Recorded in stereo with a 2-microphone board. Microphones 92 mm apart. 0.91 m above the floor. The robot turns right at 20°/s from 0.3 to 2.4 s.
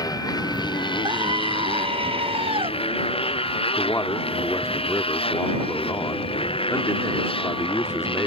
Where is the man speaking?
35° left (ahead or behind).